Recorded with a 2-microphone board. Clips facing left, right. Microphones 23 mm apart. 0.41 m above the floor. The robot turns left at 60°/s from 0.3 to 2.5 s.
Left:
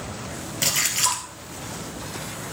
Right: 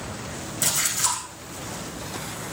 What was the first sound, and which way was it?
A splash, 145° left.